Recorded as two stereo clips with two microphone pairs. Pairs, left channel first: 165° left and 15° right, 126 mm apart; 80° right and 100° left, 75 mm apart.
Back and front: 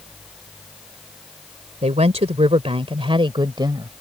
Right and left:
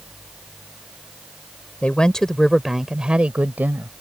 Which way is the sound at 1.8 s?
10° right.